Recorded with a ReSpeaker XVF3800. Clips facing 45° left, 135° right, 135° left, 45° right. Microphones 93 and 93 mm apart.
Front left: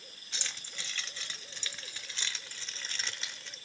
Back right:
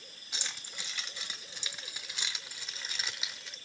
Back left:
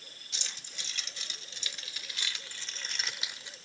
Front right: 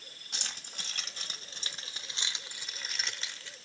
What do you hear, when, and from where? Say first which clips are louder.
0.3 s keys jangling: back right 1 dB, front right 3 dB; 60° right, 1.7 m; by 3.6 s 145° left, 0.9 m